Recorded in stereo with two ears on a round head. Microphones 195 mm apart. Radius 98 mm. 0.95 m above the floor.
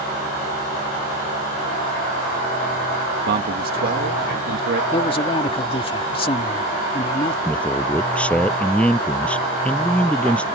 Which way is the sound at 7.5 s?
5° left (ahead or behind).